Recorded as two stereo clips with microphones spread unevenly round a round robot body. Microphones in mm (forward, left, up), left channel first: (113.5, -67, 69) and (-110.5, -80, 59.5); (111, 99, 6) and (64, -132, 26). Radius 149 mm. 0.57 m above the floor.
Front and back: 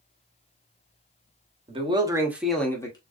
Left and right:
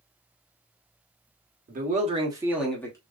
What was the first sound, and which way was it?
A man speaking, 135° right.